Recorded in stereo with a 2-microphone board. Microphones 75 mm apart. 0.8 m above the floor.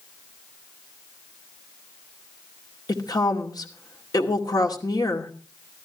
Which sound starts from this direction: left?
A woman speaking, at 2.9 s.